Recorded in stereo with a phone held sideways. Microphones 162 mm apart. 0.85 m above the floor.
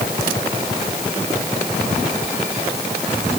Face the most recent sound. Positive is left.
No sound to turn to.